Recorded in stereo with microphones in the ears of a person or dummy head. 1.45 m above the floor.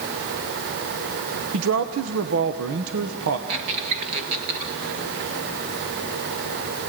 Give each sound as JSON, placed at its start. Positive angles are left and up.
{"t": 1.5, "sound": "a man speaking", "side_deg": -80, "distance_m": 1.0}
{"t": 3.5, "sound": "a squeak", "side_deg": -30, "distance_m": 1.6}